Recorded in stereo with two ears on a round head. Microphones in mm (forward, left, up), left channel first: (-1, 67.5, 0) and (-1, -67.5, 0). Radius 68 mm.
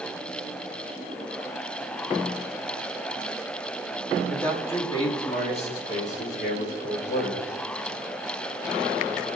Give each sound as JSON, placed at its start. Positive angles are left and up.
{"t": 4.3, "sound": "a man speaking", "side_deg": 10, "distance_m": 2.5}